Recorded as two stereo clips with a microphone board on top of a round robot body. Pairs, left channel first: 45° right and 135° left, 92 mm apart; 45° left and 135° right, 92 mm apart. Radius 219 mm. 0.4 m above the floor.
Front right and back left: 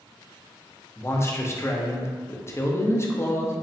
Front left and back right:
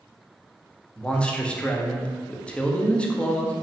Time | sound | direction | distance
1.0 | a man speaking | 20° right | 0.8 m